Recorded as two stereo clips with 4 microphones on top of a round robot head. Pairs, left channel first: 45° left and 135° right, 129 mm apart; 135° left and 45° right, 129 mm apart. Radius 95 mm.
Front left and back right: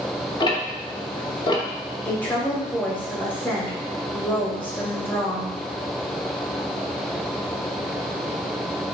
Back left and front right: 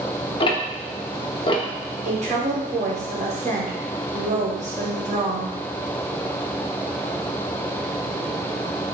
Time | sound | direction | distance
0.4 | ticking | 95° left | 1.0 m
2.0 | a woman speaking | 25° right | 1.9 m